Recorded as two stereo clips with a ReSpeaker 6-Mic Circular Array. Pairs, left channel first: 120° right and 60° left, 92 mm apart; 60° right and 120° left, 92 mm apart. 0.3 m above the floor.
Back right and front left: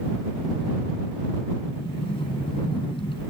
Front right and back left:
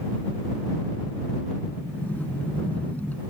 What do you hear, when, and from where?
1.7 s a sliding door: 130° right